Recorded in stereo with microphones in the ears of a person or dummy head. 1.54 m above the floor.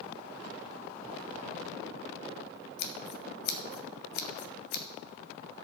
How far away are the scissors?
About 1.0 m.